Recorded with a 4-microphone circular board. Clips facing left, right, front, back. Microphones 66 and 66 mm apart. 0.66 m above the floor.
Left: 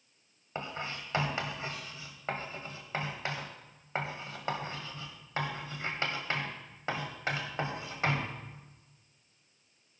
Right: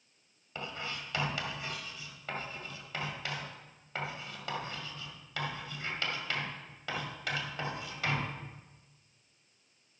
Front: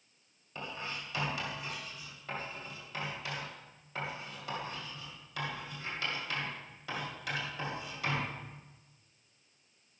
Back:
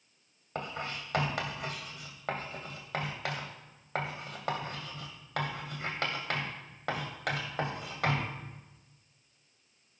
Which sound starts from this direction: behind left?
Writing, at 0.6 s.